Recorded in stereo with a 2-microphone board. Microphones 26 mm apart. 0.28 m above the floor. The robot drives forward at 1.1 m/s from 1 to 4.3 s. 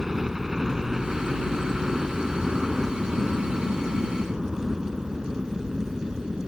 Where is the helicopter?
10° right (ahead or behind); by 6.5 s 15° right (ahead or behind).